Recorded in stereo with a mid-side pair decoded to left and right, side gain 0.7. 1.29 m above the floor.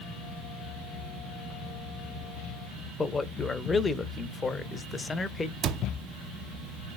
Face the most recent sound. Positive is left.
turn(degrees=-40)